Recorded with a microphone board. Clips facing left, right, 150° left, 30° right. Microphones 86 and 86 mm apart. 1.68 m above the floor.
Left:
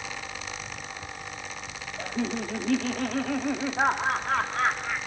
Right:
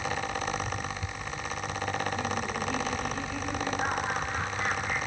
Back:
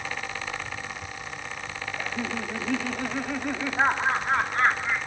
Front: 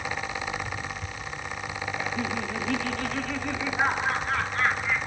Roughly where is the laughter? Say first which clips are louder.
Left 1 dB, even; ahead left.